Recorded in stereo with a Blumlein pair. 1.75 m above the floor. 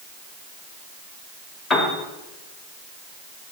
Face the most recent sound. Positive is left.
turn(degrees=25)